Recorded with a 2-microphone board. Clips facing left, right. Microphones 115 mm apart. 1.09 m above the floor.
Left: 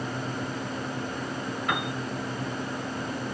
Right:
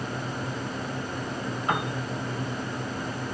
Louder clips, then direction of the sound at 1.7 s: Right 3 dB; 30° right (ahead or behind).